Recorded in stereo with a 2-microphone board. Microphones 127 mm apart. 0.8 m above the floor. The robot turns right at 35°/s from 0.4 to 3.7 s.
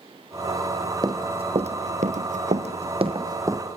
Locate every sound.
1.0 s running footsteps: 30° right (ahead or behind), 2.5 m; by 3.6 s 20° right (ahead or behind), 2.5 m